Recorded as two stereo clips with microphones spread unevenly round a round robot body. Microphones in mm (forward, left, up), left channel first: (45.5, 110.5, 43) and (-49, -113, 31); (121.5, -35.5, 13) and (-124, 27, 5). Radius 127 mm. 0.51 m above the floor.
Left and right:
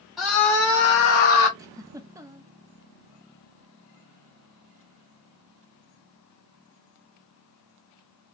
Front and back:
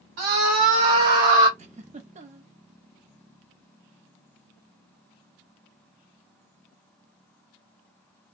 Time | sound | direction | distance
0.2 | a scream | 160° left | 1.8 m
1.6 | a giggle | 170° right | 0.6 m